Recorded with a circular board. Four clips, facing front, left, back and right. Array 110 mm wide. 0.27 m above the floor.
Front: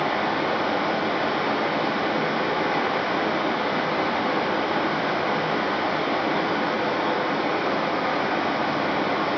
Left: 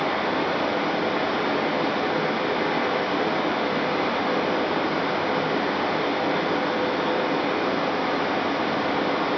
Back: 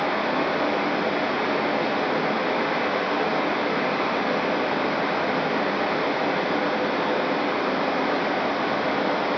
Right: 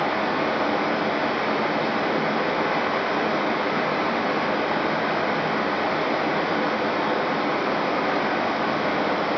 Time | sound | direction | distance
0.0 | running water | 70° right | 1.0 m